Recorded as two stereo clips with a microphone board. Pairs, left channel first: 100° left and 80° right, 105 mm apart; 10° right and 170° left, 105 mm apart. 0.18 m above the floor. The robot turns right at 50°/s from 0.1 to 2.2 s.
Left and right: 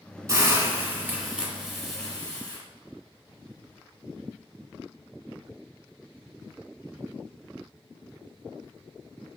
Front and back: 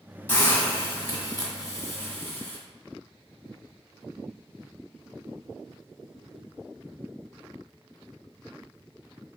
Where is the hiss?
65° right, 1.3 m; by 2.6 s 35° left, 1.3 m.